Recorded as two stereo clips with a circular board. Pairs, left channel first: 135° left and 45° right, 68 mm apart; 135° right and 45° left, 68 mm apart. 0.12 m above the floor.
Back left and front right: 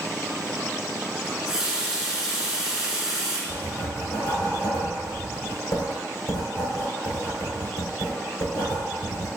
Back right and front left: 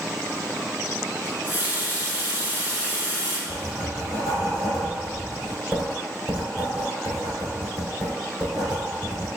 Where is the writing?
130° left, 2.0 m.